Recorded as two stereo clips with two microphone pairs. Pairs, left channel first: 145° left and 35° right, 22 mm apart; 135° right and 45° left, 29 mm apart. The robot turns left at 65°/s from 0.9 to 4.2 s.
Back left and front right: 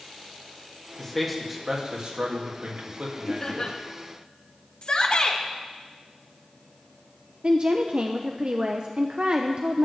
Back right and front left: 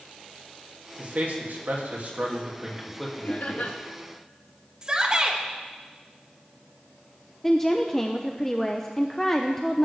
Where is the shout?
105° left, 2 m.